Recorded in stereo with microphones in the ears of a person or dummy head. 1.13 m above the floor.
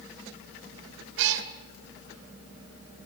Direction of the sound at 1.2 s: 75° right (ahead or behind).